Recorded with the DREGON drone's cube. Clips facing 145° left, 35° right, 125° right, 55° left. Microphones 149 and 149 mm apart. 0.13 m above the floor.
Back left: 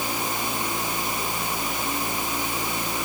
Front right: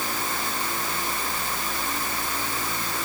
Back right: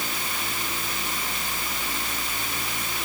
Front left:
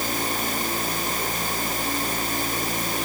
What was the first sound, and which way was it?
Only background noise.